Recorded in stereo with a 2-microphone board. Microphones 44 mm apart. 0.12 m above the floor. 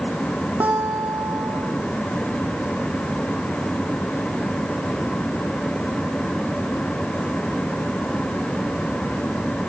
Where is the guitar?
70° right (ahead or behind), 3.5 m.